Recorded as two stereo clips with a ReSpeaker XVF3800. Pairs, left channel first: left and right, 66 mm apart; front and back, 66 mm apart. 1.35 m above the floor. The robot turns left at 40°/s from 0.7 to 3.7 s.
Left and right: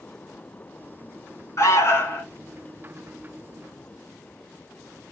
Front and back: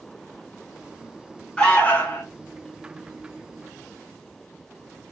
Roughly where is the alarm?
Left.